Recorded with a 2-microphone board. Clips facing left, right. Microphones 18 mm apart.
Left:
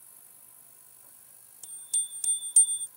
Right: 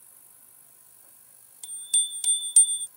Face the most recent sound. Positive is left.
turn(degrees=-30)  # may be behind; listen again after turning